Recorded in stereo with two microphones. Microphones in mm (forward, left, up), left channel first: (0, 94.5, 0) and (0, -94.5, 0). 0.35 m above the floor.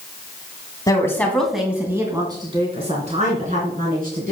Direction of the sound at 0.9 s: 20° left (ahead or behind).